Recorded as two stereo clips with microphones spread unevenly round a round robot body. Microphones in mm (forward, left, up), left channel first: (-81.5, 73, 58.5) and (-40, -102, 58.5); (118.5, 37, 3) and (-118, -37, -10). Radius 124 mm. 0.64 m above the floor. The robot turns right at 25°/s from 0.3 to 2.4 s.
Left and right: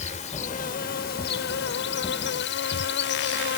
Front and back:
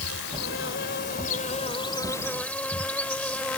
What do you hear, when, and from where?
0.0 s an insect: 50° left; by 3.6 s 100° left